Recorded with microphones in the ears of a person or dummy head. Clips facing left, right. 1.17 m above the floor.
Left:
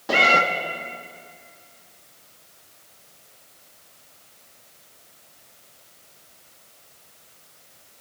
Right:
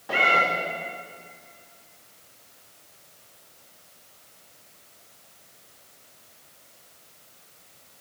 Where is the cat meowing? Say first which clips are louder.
Left 4 dB; 60° left (ahead or behind), 1.0 m.